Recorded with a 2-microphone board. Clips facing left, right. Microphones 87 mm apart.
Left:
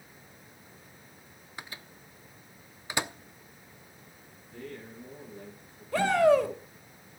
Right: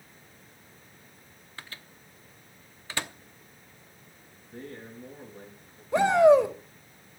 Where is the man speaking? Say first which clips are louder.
Right 1 dB; 30° right (ahead or behind), 9 m.